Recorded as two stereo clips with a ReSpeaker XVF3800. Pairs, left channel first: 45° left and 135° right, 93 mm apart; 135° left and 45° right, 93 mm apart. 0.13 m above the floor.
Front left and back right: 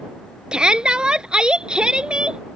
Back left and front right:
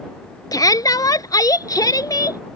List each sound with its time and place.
0.5 s a shout: 150° left